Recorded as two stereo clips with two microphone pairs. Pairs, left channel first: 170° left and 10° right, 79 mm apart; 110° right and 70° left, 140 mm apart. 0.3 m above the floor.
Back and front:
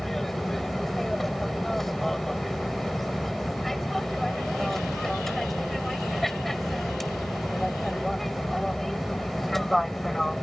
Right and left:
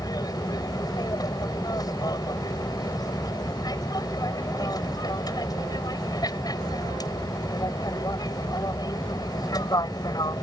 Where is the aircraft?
105° right.